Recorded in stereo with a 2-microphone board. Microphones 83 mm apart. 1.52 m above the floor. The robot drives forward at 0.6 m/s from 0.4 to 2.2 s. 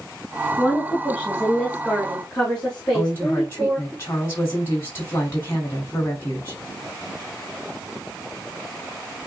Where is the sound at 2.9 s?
30° left (ahead or behind), 2.5 m.